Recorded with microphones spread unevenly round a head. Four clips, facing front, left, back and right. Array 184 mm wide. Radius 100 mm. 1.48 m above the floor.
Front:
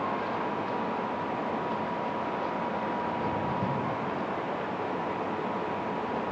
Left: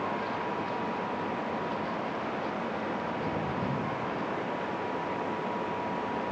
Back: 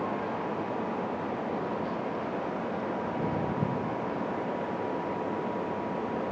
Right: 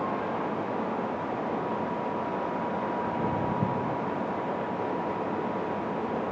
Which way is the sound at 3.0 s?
135° right.